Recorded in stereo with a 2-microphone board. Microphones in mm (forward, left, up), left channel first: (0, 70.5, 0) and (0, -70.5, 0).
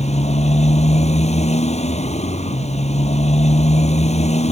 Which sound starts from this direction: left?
A motorcycle, at 0.0 s.